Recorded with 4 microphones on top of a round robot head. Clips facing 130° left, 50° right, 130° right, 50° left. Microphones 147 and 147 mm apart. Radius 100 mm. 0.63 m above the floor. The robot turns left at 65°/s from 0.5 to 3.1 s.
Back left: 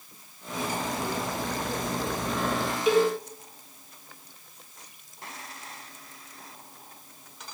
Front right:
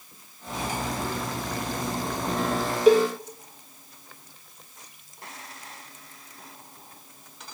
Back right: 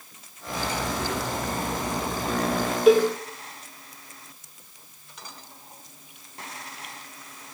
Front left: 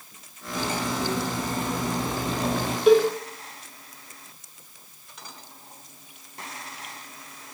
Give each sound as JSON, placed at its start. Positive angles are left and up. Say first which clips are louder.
{"t": 0.5, "sound": "cutlery clinking", "louder": "even, front left 1 dB", "azimuth_deg": -115, "distance_m": 1.9}
{"t": 2.9, "sound": "a cowbell", "louder": "front right 5 dB, even", "azimuth_deg": -40, "distance_m": 0.9}